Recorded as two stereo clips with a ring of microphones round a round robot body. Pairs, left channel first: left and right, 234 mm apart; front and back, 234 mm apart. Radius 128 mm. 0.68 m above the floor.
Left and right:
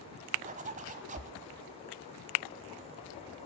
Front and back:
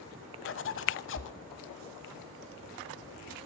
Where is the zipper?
30° right, 0.9 m.